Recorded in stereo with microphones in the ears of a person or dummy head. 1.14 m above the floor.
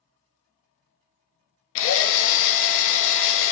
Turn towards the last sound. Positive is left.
turn(degrees=70)  # may be behind; listen again after turning